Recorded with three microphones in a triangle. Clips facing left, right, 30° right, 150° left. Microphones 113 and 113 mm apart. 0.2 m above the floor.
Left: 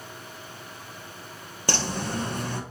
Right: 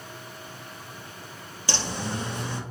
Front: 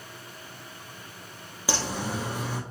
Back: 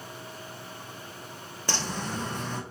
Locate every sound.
1.7 s a bird: 50° left, 1.1 m